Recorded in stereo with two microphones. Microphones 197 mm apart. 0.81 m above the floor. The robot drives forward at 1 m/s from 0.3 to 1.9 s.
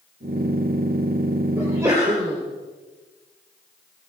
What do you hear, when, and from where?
1.6 s a sneeze: 15° right (ahead or behind), 3 m